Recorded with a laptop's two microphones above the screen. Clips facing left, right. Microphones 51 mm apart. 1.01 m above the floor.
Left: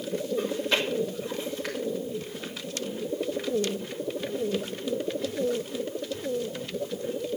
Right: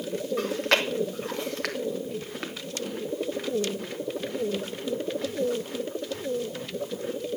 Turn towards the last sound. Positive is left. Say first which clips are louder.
# right 3 dB
turn(degrees=-70)  # may be behind; listen again after turning